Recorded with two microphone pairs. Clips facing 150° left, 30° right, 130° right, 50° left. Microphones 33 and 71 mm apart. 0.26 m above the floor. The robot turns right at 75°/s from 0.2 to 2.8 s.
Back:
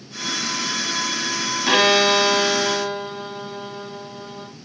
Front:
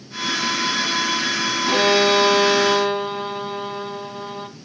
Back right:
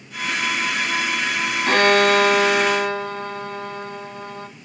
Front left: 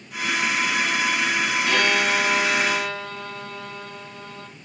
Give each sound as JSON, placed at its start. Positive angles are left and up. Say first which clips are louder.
{"t": 1.7, "sound": "a violin", "louder": "back 1 dB, back right 8 dB", "azimuth_deg": -160, "distance_m": 1.2}